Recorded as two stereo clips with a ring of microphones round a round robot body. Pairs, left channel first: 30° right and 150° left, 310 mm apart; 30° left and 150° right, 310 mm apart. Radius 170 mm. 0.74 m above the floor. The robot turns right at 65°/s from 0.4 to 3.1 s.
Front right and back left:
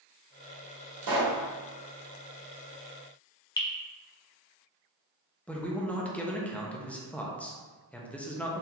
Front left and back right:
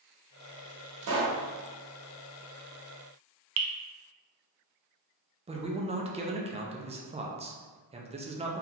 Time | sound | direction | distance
1.0 | a pop | 165° left | 1.4 m
3.6 | dripping | 110° right | 0.7 m
5.5 | a man speaking | 110° right | 0.7 m